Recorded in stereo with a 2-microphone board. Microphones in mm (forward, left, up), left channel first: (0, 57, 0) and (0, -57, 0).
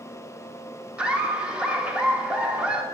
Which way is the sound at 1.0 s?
10° right (ahead or behind).